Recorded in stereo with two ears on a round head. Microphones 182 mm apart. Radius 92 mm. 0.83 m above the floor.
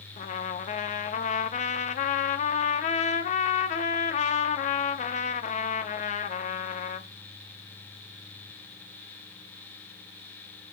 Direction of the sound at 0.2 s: 35° left (ahead or behind).